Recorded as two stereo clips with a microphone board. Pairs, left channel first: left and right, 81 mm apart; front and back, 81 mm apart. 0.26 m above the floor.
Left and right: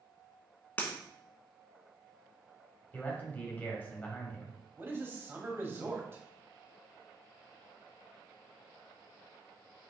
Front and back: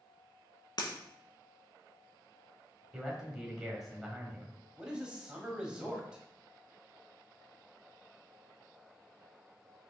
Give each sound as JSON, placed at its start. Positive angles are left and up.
{"t": 0.8, "sound": "breaking glass", "azimuth_deg": 20, "distance_m": 1.2}
{"t": 2.9, "sound": "a man speaking", "azimuth_deg": 100, "distance_m": 1.4}
{"t": 4.8, "sound": "a man speaking", "azimuth_deg": -110, "distance_m": 1.1}